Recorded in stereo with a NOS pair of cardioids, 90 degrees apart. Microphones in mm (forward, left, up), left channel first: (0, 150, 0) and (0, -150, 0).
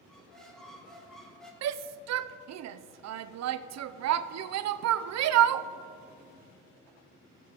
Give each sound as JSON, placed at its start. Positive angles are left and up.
{"t": 0.1, "sound": "a squeak", "azimuth_deg": 0, "distance_m": 1.9}
{"t": 1.6, "sound": "a shout", "azimuth_deg": -60, "distance_m": 0.5}